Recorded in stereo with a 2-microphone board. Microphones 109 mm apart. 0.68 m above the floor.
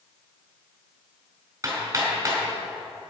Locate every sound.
1.6 s hammering: 25° right (ahead or behind), 3.5 m